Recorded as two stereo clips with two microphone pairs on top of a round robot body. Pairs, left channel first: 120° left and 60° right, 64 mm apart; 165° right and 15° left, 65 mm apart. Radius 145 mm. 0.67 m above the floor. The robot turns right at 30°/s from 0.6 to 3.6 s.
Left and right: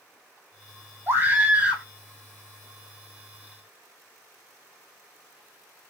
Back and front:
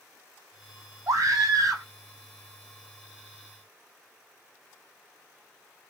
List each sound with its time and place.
1.1 s a scream: 5° right, 2.5 m; by 1.9 s 20° left, 2.5 m